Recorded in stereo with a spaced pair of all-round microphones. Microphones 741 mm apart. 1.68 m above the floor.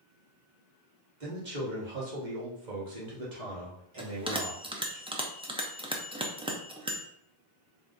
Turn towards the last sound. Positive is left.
turn(degrees=-10)  # may be behind; listen again after turning